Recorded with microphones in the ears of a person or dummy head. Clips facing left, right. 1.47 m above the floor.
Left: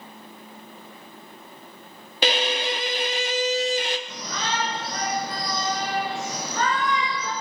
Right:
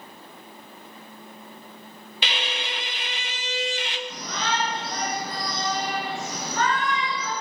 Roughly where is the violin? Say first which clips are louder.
Left 9 dB; left.